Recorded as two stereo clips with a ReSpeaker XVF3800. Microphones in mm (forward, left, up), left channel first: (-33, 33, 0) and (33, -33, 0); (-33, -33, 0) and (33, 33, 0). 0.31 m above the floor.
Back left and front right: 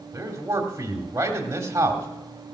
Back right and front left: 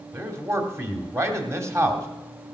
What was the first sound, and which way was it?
A man speaking, straight ahead.